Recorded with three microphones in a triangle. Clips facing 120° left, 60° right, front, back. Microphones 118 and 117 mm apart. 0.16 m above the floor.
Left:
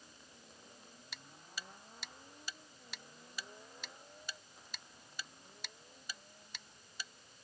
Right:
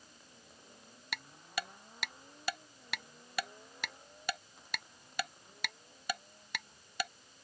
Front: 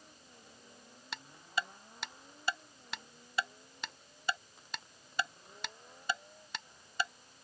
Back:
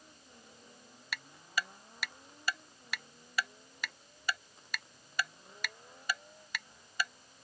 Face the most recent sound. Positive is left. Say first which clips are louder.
# right 11 dB, even
turn(degrees=-65)